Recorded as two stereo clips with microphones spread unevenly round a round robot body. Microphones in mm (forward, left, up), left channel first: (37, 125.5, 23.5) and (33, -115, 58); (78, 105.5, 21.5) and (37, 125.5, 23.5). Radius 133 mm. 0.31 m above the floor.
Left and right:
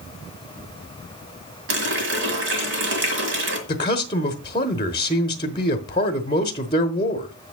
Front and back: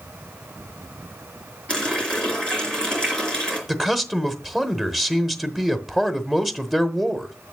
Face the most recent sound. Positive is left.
turn(degrees=85)